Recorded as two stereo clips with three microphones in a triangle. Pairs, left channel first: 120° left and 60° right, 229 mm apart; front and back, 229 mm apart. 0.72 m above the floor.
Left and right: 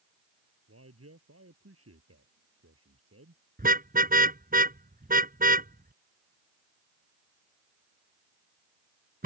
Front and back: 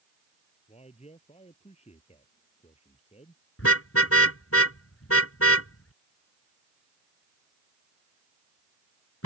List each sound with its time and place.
0.7 s a man speaking: 60° right
3.6 s a car horn: 10° right